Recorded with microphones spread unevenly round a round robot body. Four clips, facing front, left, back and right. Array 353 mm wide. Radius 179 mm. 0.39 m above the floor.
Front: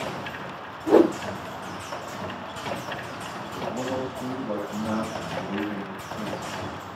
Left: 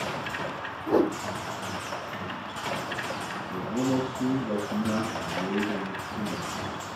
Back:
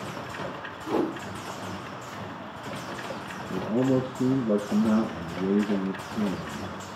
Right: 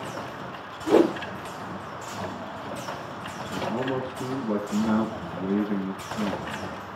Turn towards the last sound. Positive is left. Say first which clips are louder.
# left 1 dB, back 6 dB
turn(degrees=175)